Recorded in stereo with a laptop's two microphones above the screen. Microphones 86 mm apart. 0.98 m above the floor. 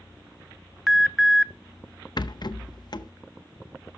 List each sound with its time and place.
0.9 s an alarm: centre (ahead or behind), 0.5 m
2.2 s a rattle: 55° left (ahead or behind), 0.7 m